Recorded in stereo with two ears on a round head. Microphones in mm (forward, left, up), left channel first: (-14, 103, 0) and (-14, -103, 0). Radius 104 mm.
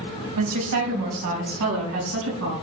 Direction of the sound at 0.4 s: 80° right.